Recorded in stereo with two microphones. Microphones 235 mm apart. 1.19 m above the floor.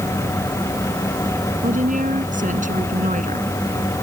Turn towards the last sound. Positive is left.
turn(degrees=-35)  # may be behind; listen again after turning